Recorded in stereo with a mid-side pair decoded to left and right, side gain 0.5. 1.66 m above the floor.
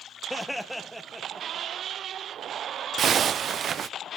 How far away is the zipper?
About 0.7 m.